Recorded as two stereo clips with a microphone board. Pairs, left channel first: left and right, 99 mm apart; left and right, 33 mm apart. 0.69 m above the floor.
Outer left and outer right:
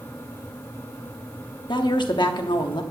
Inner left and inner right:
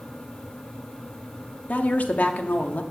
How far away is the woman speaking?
About 1.1 m.